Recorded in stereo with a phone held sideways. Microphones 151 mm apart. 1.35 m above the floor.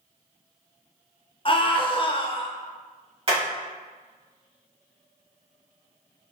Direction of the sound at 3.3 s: 40° right (ahead or behind).